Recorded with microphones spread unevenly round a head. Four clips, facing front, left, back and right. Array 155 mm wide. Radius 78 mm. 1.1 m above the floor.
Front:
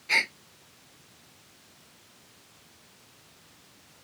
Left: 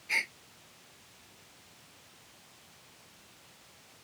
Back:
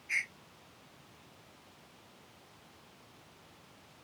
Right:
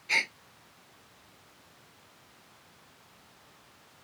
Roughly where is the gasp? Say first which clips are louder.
Right 4 dB, front 10 dB; ahead.